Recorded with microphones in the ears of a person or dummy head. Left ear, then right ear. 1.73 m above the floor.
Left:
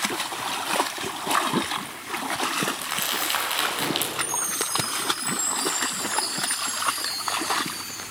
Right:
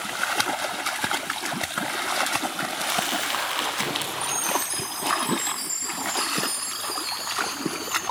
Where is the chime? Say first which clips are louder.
Right 2 dB; 20° right (ahead or behind), 7 m.